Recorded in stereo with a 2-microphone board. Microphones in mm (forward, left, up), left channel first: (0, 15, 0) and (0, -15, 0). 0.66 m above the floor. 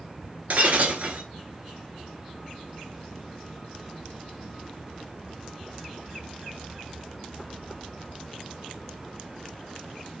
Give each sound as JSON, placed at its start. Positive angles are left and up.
{"t": 0.5, "sound": "breaking glass", "side_deg": -55, "distance_m": 1.0}